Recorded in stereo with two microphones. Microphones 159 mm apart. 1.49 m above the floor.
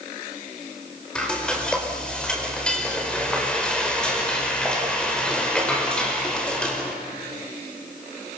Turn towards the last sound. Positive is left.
turn(degrees=5)  # may be behind; listen again after turning